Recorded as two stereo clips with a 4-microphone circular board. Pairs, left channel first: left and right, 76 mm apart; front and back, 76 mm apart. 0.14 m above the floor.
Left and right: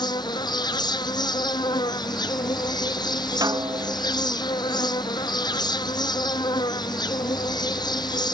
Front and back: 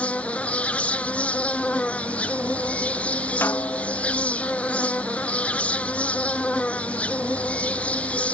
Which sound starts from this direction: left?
An insect, at 0.0 s.